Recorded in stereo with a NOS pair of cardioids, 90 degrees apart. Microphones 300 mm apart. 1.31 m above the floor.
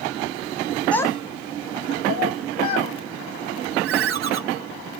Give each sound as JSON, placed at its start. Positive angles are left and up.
{"t": 0.9, "sound": "a child speaking", "azimuth_deg": 5, "distance_m": 0.6}
{"t": 3.8, "sound": "a ringtone", "azimuth_deg": -50, "distance_m": 0.6}